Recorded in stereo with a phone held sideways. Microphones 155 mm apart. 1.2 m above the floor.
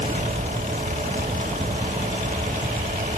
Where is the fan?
55° right (ahead or behind).